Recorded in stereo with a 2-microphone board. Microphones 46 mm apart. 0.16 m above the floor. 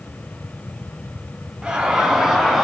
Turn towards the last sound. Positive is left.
turn(degrees=0)  # may be behind; listen again after turning